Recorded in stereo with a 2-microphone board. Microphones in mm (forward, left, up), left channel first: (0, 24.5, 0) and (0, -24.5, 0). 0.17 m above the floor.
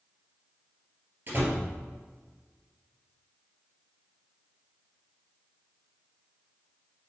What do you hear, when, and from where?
1.3 s a door slam: 45° right (ahead or behind), 2 m